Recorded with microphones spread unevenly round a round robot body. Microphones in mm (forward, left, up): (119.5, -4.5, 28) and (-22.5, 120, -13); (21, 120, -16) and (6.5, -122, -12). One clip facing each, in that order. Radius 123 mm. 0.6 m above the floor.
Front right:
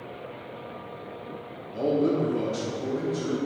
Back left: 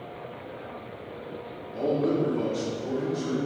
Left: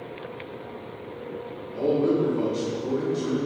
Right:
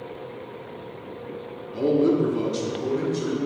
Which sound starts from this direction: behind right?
A man speaking, at 1.7 s.